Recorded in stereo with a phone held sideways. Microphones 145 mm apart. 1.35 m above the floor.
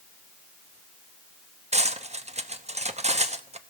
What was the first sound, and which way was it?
Cutlery clinking, 50° right (ahead or behind).